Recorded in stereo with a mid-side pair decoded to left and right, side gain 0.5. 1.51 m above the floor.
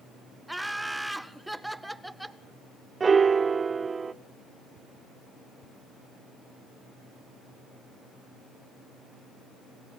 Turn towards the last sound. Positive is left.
turn(degrees=-30)